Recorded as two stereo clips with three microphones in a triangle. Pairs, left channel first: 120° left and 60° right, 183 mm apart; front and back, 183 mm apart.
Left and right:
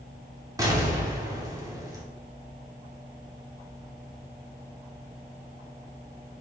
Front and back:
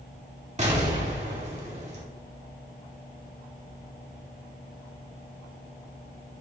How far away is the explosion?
About 2.5 m.